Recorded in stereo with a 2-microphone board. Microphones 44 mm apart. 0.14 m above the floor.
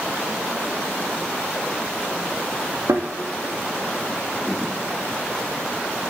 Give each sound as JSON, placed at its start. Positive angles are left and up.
{"t": 2.9, "sound": "a thud", "side_deg": -80, "distance_m": 1.7}